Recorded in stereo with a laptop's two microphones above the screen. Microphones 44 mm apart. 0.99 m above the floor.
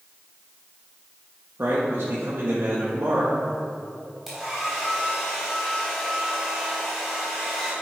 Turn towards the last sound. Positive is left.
turn(degrees=-5)  # may be behind; listen again after turning